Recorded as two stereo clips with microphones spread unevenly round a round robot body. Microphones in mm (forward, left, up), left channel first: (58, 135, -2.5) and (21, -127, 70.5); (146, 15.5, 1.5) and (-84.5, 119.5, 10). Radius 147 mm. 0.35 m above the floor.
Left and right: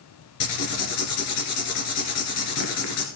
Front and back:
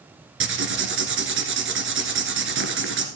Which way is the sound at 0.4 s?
115° left.